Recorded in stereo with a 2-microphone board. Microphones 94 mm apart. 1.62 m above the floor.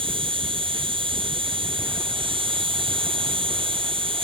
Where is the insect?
75° right (ahead or behind).